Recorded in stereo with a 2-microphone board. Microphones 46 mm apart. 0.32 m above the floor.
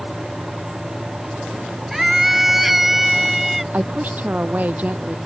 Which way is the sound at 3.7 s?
40° right (ahead or behind).